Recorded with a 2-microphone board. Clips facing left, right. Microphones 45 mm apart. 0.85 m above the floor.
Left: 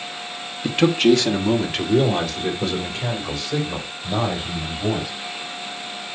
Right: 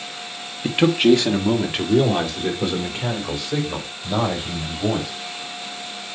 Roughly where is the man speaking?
Centre.